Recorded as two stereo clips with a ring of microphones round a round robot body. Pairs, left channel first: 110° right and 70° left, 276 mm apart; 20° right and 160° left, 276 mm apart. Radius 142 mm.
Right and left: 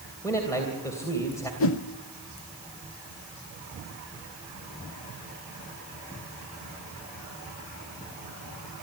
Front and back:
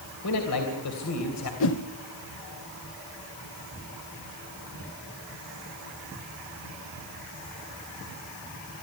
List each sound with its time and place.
0.2 s a man speaking: 35° right, 3 m
1.6 s a whoosh: 70° right, 0.8 m